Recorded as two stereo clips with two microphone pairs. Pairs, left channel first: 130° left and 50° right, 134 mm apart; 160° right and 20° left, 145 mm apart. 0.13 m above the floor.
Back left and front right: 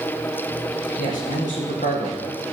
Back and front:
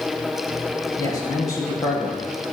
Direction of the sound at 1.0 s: 135° left.